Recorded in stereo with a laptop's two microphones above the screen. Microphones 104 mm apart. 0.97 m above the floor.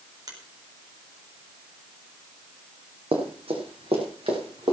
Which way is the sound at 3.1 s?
75° right (ahead or behind).